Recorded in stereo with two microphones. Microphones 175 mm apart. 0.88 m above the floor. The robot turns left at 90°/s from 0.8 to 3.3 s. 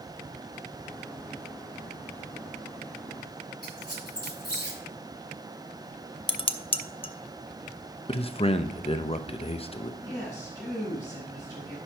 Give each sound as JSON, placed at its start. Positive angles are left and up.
{"t": 3.6, "sound": "a squeak", "side_deg": 65, "distance_m": 3.0}
{"t": 6.3, "sound": "dishes clattering", "side_deg": 30, "distance_m": 0.5}
{"t": 8.1, "sound": "a man speaking", "side_deg": 35, "distance_m": 0.6}
{"t": 10.0, "sound": "a woman speaking", "side_deg": 20, "distance_m": 5.0}